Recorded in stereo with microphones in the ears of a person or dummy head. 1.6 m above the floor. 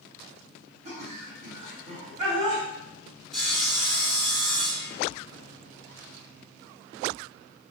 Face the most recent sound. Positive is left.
turn(degrees=0)  # may be behind; listen again after turning